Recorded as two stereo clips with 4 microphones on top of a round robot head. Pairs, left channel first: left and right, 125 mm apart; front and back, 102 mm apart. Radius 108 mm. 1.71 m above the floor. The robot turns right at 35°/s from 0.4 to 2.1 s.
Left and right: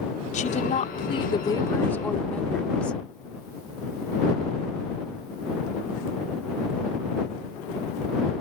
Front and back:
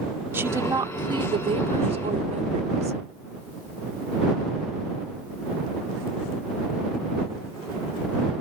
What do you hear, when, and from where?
0.3 s a woman speaking: 110° left; by 3.0 s 170° left